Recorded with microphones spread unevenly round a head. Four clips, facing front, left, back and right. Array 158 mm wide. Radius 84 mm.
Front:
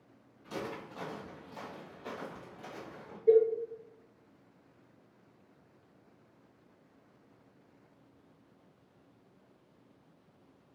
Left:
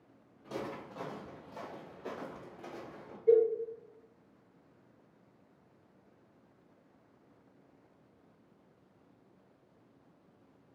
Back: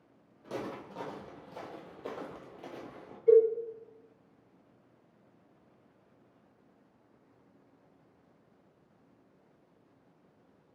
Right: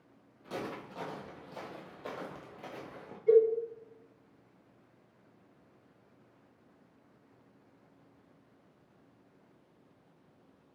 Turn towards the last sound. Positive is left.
turn(degrees=-130)